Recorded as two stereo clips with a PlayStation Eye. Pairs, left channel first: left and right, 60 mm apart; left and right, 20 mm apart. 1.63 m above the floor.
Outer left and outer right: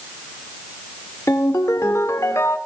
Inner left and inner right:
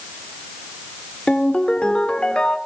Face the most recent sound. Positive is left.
turn(degrees=55)  # may be behind; listen again after turning